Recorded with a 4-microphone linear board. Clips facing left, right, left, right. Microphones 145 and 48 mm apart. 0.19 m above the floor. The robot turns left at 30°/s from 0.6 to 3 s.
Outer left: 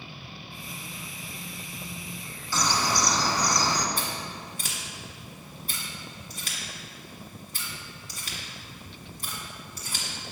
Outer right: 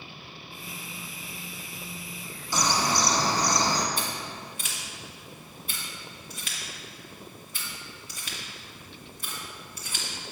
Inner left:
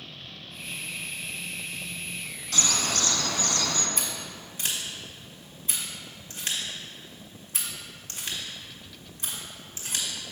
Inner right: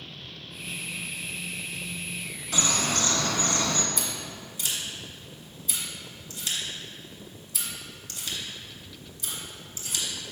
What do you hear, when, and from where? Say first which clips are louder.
2.5 s a bird: outer right 1 dB, inner right 1 dB; 15° right (ahead or behind), 0.7 m; by 3.9 s 25° right (ahead or behind), 0.7 m
4.0 s scissors: even, inner right 1 dB; 40° left (ahead or behind), 1.7 m